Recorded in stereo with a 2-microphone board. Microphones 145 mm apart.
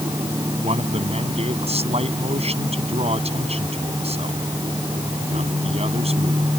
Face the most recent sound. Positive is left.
turn(degrees=-45)  # may be behind; listen again after turning